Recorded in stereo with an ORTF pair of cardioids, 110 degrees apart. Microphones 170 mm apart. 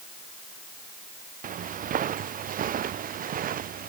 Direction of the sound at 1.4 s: 55° right.